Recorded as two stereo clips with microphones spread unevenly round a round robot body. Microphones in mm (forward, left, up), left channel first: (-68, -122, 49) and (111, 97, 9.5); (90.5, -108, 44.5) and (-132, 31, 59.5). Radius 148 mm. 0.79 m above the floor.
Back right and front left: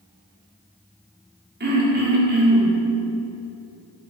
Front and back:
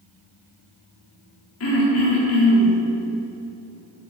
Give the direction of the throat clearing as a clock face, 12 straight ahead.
12 o'clock.